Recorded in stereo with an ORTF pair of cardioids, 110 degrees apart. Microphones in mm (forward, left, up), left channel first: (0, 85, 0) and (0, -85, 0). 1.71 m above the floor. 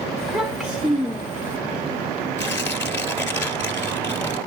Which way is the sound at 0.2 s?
5° left.